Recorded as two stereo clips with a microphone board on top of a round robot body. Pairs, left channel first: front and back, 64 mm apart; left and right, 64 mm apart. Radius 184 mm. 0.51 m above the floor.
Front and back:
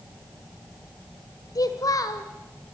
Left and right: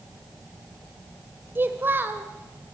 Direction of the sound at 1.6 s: 30° right.